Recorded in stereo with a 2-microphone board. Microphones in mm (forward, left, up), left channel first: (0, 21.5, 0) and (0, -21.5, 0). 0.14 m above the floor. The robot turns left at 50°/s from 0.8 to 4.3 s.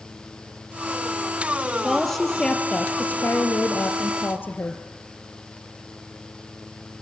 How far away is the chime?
I don't hear a chime.